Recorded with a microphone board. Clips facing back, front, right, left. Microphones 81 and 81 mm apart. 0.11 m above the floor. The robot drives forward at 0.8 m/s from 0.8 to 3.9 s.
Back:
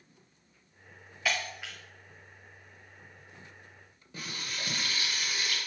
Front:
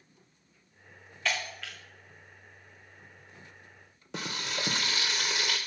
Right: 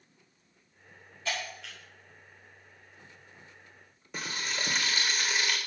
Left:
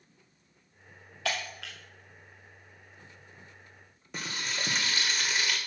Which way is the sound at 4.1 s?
Straight ahead.